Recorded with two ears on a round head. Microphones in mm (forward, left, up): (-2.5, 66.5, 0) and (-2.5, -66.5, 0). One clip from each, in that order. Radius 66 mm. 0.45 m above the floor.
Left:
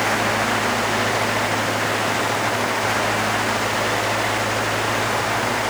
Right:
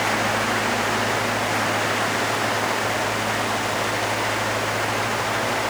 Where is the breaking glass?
I don't hear breaking glass.